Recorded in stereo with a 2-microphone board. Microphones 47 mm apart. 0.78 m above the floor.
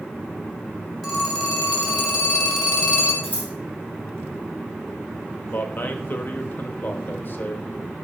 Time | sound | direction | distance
1.0 | a phone ringing | 5° left (ahead or behind) | 3 m
3.2 | scissors | 30° left (ahead or behind) | 4 m
5.5 | a man speaking | 45° left (ahead or behind) | 0.9 m